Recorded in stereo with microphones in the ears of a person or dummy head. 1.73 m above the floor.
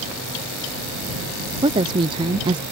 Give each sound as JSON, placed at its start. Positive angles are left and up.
{"t": 1.6, "sound": "a woman speaking", "side_deg": -30}